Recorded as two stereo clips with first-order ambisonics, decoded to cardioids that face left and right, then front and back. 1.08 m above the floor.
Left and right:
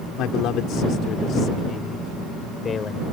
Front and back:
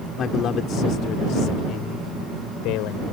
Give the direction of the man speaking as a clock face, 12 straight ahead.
10 o'clock.